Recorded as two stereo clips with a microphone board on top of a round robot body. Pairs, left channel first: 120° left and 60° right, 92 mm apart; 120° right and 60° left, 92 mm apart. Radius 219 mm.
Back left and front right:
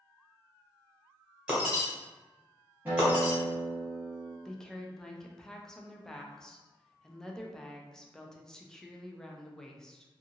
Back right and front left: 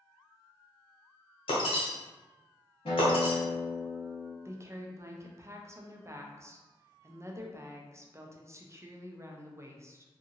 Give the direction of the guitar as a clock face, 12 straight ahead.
4 o'clock.